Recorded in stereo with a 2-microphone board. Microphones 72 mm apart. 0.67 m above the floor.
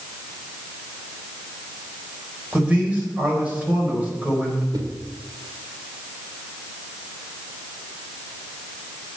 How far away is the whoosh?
About 1.5 m.